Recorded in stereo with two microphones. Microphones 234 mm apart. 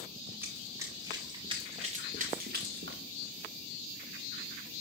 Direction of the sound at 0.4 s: 10° right (ahead or behind).